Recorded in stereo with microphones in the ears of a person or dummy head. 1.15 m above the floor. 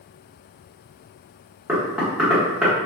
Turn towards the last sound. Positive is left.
turn(degrees=-5)  # may be behind; listen again after turning